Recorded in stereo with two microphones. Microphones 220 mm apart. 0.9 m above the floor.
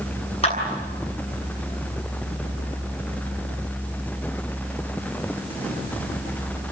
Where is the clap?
30° left (ahead or behind), 8.5 m.